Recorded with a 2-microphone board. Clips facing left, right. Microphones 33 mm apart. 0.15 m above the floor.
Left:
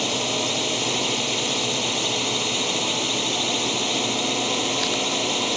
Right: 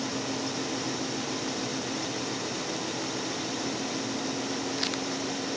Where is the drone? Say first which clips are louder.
Left 8 dB; 65° left (ahead or behind).